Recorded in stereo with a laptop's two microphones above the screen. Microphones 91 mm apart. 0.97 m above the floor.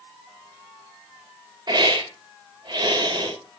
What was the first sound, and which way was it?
A hiss, 50° right (ahead or behind).